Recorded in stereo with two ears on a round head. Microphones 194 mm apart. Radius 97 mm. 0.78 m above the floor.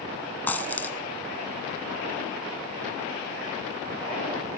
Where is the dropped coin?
10° left (ahead or behind), 1.4 m.